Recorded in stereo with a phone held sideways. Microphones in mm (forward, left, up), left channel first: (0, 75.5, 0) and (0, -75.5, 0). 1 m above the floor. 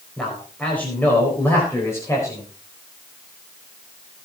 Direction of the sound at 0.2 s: 5° left (ahead or behind).